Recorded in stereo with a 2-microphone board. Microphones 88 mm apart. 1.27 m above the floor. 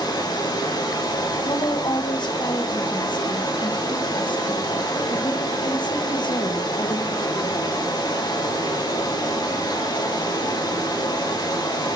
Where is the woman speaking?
60° left (ahead or behind), 1.1 m.